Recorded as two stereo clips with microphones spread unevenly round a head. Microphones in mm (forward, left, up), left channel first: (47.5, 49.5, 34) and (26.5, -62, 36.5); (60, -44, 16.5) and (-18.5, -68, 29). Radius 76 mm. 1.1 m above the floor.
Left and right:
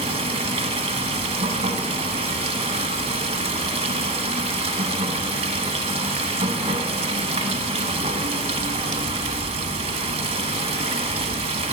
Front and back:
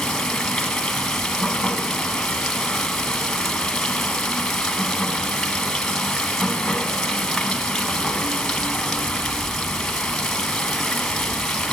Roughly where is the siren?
I don't hear a siren.